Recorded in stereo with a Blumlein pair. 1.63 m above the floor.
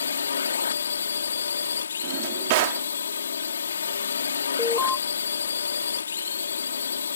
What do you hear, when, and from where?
0.0 s a drone: 70° left
2.0 s a drawer: 50° right
4.6 s an alarm: 15° left